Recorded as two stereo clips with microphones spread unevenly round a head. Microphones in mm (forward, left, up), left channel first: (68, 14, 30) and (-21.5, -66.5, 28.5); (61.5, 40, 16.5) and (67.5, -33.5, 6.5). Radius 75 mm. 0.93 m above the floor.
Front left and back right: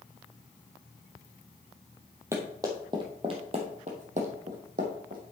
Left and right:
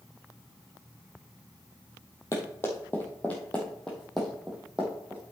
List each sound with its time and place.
2.3 s running footsteps: 150° left, 1.7 m; by 5.2 s 170° right, 2.5 m